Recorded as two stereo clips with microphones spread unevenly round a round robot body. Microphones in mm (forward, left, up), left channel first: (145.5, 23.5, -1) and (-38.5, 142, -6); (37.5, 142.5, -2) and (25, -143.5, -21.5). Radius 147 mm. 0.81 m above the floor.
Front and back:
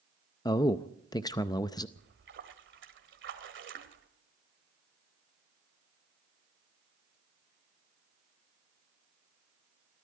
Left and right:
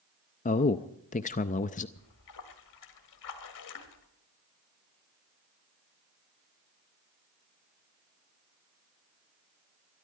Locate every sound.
0.5 s a man speaking: 35° left, 0.5 m
2.0 s a splash: 115° left, 1.7 m